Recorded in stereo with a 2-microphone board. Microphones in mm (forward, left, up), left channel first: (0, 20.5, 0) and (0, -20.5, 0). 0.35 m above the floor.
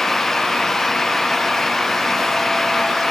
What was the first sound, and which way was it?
Only background noise.